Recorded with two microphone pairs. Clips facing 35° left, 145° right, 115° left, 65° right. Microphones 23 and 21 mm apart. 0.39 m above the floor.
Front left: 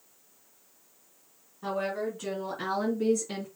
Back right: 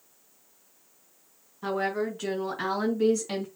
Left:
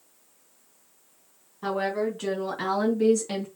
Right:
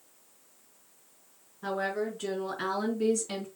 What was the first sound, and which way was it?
A woman speaking, 145° left.